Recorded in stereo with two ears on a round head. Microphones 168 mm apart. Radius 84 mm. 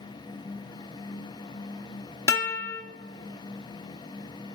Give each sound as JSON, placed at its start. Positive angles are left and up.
{"t": 2.3, "sound": "a guitar", "side_deg": 20, "distance_m": 1.5}